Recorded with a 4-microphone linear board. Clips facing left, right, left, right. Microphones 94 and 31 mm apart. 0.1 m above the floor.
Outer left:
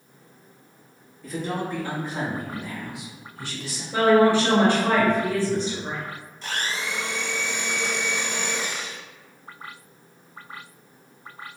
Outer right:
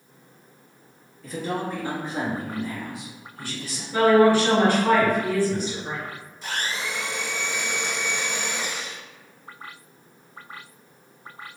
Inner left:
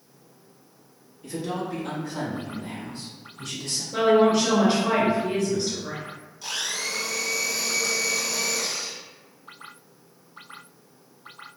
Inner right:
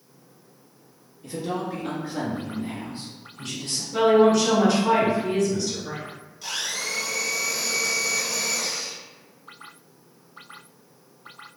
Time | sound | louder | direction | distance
1.2 | a man speaking | even, inner right 1 dB | centre (ahead or behind) | 1.6 m
3.9 | a woman speaking | outer right 1 dB, inner right 2 dB | 20° left (ahead or behind) | 1.8 m
6.4 | a blender | even, even | 5° right (ahead or behind) | 1.4 m